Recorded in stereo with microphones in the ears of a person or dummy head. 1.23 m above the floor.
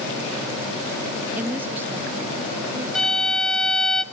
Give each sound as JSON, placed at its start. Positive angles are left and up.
{"t": 1.4, "sound": "a woman speaking", "side_deg": -10, "distance_m": 1.3}
{"t": 3.0, "sound": "a violin", "side_deg": 5, "distance_m": 1.9}